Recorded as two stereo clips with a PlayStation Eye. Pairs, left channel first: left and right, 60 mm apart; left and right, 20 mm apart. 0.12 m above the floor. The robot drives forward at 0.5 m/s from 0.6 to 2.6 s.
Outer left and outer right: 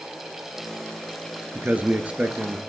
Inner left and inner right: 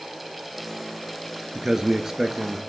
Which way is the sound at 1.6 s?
25° right (ahead or behind).